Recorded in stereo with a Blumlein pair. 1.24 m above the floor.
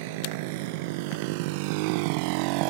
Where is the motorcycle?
50° right; by 2.7 s 45° right.